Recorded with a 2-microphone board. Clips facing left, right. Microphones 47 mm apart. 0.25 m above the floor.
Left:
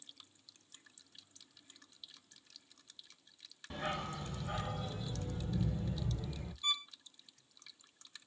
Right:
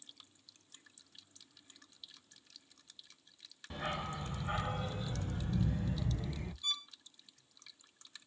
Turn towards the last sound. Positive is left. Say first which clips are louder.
# left 3 dB
turn(degrees=40)  # may be behind; listen again after turning